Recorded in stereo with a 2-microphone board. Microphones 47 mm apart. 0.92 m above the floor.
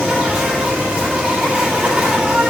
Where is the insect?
25° right (ahead or behind), 9 m.